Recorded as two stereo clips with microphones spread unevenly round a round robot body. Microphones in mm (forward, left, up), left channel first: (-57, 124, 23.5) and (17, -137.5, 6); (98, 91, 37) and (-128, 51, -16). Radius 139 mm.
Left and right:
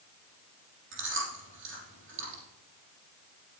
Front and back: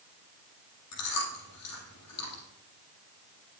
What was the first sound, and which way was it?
Chewing, 25° right.